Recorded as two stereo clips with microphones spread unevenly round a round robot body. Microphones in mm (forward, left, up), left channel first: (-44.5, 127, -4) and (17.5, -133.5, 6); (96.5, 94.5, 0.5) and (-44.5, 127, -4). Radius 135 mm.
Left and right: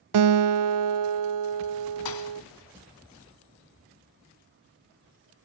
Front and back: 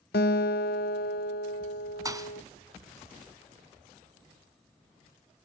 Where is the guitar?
55° right, 0.6 m.